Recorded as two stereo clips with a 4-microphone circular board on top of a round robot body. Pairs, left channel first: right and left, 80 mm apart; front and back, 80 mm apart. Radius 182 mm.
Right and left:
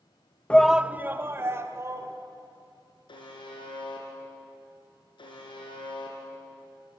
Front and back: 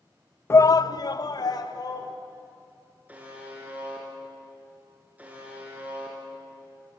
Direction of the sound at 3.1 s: 110° right.